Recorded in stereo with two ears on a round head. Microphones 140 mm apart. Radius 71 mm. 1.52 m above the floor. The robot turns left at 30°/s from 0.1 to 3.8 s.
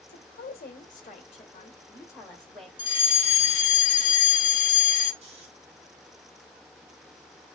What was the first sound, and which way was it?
A woman speaking, 80° left.